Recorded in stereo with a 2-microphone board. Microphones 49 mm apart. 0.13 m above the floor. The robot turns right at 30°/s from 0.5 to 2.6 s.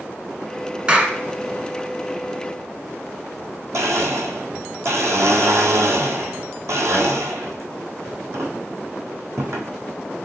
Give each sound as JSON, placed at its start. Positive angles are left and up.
{"t": 0.9, "sound": "a clap", "side_deg": -20, "distance_m": 0.9}
{"t": 3.7, "sound": "a blender", "side_deg": -80, "distance_m": 1.0}